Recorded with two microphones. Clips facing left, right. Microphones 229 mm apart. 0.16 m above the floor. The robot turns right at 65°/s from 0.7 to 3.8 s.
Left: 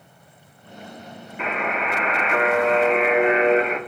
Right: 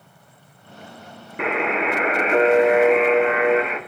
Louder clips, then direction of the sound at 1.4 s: Right 5 dB; 105° right.